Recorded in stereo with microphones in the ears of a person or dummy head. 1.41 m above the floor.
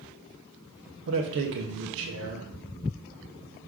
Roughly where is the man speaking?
Right.